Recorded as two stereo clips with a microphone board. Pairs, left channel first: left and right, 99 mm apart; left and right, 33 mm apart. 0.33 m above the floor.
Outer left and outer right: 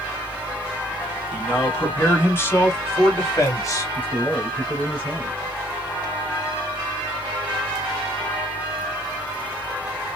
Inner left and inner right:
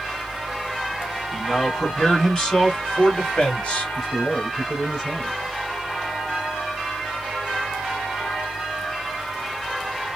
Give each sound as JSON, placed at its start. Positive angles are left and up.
{"t": 1.3, "sound": "a man speaking", "side_deg": 20, "distance_m": 3.0}
{"t": 4.0, "sound": "a man speaking", "side_deg": 20, "distance_m": 2.5}